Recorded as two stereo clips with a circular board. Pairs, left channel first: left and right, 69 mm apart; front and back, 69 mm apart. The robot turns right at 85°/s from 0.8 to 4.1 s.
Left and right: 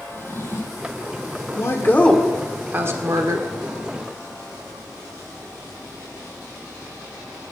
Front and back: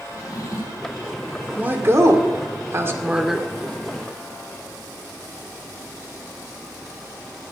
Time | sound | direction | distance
0.1 | a drawer | 35° left | 4 m
1.5 | a woman speaking | 115° left | 1.9 m